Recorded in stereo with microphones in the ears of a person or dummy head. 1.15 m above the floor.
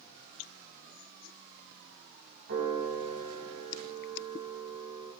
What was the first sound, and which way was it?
A piano, 60° right (ahead or behind).